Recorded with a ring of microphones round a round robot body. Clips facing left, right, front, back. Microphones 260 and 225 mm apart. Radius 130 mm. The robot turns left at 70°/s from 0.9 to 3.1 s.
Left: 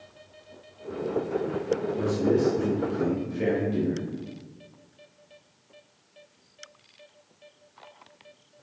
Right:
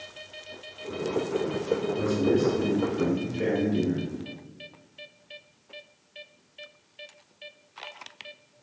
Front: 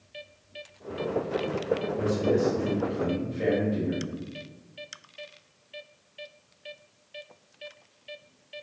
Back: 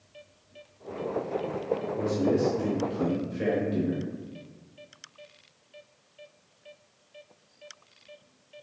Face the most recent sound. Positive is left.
turn(degrees=-170)